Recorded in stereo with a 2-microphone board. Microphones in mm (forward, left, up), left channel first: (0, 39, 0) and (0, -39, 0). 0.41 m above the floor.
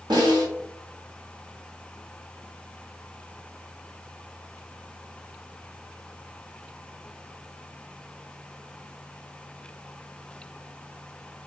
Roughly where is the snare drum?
Right.